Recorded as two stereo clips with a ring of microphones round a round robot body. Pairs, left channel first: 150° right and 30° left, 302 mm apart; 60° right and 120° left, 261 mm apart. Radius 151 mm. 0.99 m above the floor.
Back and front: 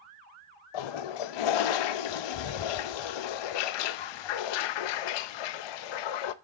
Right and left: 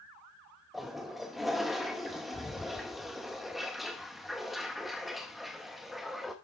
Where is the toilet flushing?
150° right, 0.6 m.